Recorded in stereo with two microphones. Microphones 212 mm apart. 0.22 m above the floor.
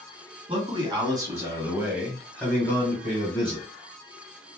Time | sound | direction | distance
0.5 | a man speaking | 25° right (ahead or behind) | 1.6 m